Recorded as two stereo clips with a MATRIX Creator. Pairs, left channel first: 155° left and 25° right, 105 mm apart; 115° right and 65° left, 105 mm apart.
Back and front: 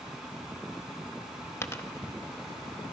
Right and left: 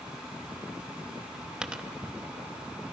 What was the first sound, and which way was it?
A dropped coin, 135° left.